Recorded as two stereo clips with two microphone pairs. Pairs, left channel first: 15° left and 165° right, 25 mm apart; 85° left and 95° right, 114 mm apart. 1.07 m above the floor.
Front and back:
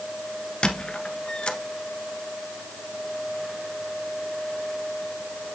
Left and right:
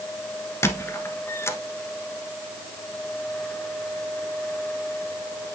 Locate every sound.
0.6 s a squeak: 35° left, 1.3 m